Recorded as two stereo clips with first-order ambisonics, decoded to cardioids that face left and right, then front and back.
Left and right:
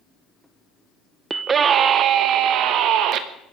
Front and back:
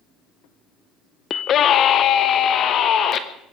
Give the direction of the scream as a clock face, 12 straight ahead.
1 o'clock.